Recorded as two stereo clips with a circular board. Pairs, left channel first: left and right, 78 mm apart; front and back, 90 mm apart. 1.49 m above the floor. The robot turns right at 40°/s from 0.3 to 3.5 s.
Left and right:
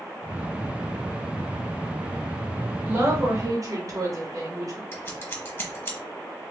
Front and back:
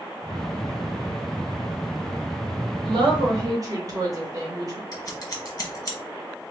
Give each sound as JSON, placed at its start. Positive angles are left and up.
{"t": 2.9, "sound": "a woman speaking", "azimuth_deg": -155, "distance_m": 1.4}
{"t": 4.9, "sound": "scissors", "azimuth_deg": 35, "distance_m": 0.9}